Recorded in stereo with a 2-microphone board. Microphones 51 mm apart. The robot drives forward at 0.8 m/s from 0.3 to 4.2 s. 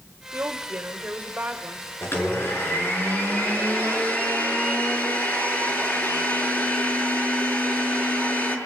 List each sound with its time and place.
0.3 s a woman speaking: 40° right (ahead or behind), 2.0 m; by 1.9 s 25° right (ahead or behind), 3 m
2.0 s a blender: 55° left (ahead or behind), 5.5 m; by 8.6 s 40° left (ahead or behind), 7 m